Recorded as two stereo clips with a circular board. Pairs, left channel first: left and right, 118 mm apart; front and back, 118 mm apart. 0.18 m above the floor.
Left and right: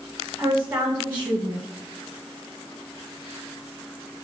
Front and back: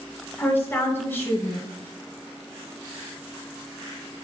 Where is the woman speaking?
45° right, 1.1 m.